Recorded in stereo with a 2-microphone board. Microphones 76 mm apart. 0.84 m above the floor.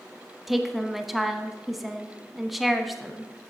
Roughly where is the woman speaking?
Centre.